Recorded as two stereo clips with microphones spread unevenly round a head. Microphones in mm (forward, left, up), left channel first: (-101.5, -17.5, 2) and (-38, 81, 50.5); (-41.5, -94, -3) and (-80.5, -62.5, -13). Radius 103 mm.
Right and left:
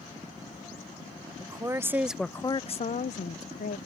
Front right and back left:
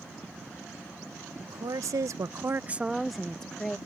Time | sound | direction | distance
1.4 | a woman speaking | 120° left | ?